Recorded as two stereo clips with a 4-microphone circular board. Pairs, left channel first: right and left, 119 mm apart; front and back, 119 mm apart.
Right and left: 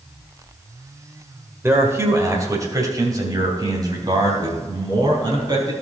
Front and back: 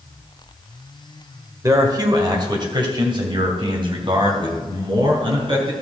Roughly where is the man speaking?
Behind left.